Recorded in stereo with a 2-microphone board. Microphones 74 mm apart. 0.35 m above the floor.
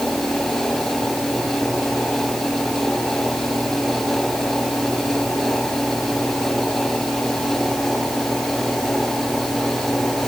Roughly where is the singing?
I don't hear singing.